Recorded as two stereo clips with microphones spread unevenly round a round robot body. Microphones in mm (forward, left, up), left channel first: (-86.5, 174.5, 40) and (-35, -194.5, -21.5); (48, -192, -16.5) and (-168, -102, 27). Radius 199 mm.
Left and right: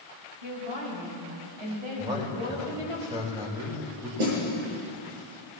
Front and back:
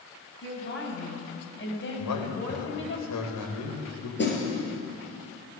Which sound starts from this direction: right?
A snare drum, at 4.2 s.